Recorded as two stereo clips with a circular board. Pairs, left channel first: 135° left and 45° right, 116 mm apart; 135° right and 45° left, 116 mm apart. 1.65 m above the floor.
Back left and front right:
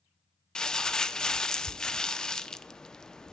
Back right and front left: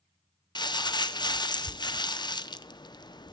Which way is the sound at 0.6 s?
145° right.